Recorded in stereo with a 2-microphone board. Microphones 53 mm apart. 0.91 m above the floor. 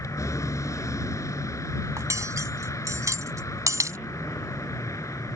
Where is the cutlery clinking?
85° right.